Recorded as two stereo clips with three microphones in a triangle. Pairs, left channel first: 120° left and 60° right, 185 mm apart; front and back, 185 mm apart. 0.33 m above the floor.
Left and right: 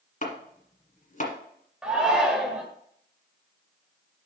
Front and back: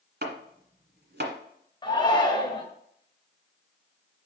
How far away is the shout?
About 1.2 m.